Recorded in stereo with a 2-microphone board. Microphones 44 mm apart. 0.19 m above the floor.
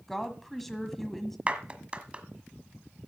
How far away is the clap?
About 1.4 m.